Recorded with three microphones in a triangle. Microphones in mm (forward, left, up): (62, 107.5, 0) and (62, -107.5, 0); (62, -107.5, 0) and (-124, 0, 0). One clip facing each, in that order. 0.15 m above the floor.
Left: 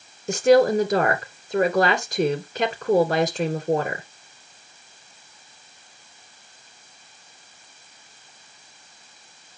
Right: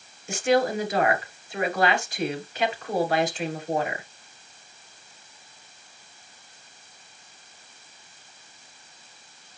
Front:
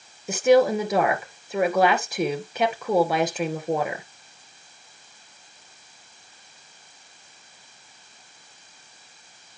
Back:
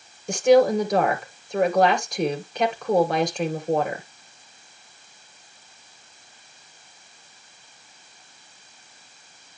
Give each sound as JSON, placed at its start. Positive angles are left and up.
{"t": 0.3, "sound": "a woman speaking", "azimuth_deg": 55, "distance_m": 2.0}